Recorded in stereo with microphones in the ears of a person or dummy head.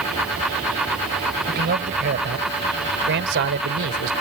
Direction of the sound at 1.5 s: 55° right (ahead or behind).